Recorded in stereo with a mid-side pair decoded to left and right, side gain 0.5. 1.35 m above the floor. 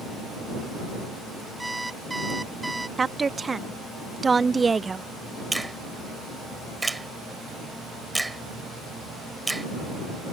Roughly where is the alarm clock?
Ahead.